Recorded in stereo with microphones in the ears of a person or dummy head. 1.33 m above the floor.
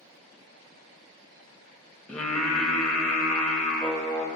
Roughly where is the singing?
Centre.